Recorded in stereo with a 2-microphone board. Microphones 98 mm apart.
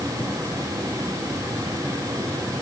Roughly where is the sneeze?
No sneeze in this recording.